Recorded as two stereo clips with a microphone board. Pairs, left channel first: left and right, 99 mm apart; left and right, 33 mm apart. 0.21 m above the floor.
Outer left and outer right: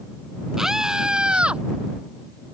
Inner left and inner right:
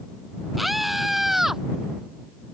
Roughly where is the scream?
Centre.